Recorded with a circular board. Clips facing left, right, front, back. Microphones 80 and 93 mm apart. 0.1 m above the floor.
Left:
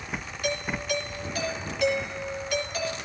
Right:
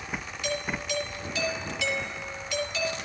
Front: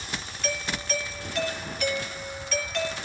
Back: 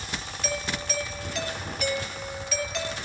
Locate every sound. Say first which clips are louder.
0.4 s a doorbell: left 2 dB, even; 95° left, 3 m